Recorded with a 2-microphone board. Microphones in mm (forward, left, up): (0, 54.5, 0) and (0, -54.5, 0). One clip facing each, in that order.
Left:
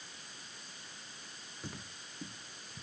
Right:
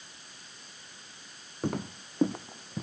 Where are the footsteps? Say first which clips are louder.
Right 16 dB; 55° right (ahead or behind); by 2.8 s 80° right.